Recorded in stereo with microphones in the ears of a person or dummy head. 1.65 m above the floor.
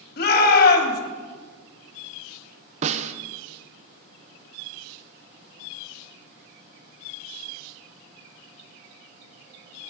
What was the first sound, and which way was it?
A shout, 55° left (ahead or behind).